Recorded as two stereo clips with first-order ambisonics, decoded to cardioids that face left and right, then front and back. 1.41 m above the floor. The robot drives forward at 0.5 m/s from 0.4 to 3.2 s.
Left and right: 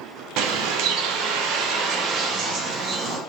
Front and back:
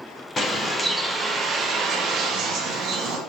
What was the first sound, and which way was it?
A bird, 70° right.